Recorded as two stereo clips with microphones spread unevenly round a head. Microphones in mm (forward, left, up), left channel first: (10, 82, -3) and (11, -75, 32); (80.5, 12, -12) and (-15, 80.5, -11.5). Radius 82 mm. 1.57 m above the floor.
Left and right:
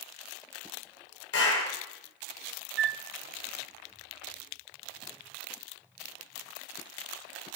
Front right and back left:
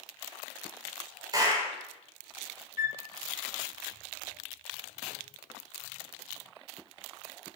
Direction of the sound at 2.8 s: 70° right.